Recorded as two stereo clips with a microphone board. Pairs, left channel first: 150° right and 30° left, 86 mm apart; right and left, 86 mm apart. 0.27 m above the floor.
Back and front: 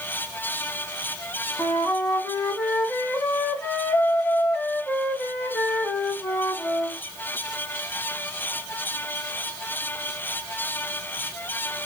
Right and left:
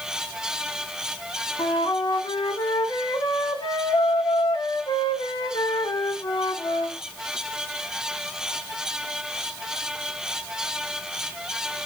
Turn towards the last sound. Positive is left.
turn(degrees=-85)